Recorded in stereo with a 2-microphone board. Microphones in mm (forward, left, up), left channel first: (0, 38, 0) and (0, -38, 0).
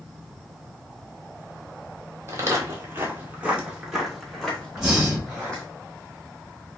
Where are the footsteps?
35° right (ahead or behind), 0.9 m; by 5.6 s 15° left (ahead or behind), 1.3 m.